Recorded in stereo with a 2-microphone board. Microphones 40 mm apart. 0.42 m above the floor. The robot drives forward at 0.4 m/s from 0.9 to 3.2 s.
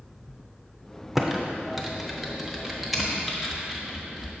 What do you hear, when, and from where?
1.1 s typing on a keyboard: 10° right (ahead or behind), 0.7 m; by 4.3 s 5° right (ahead or behind), 1.2 m